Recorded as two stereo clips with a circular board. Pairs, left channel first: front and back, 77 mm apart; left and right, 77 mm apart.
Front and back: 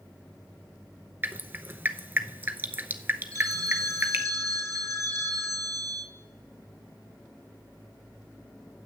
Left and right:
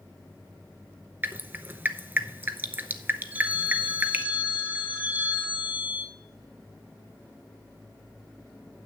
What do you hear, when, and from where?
1.2 s dripping: 135° right, 0.6 m
3.3 s a phone ringing: 150° right, 1.5 m